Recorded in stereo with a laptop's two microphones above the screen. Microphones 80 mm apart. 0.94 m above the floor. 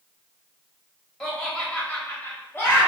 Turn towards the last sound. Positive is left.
turn(degrees=30)  # may be behind; listen again after turning